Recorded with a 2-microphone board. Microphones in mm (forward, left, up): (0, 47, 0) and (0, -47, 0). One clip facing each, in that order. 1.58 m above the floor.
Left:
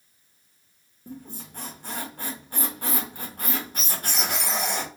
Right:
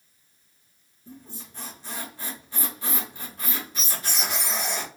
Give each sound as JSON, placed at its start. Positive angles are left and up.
{"t": 1.1, "sound": "a squeak", "side_deg": 50, "distance_m": 1.0}